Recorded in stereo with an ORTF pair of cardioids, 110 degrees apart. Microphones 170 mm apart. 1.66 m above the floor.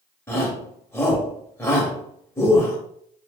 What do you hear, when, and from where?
0.3 s a shout: 15° left, 1.1 m